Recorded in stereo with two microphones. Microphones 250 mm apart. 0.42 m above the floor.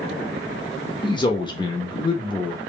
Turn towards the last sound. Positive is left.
turn(degrees=20)  # may be behind; listen again after turning